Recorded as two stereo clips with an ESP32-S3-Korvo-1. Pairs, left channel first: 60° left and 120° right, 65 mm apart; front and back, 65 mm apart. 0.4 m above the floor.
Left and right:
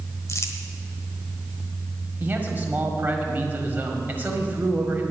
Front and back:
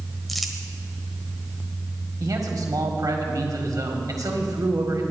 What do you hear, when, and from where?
0.3 s crumpling: 90° left, 1.3 m
2.2 s a man speaking: straight behind, 1.8 m